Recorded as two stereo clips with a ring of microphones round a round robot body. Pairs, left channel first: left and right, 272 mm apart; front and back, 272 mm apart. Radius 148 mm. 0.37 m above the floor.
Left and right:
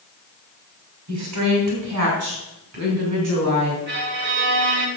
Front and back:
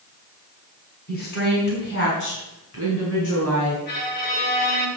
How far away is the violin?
About 2 m.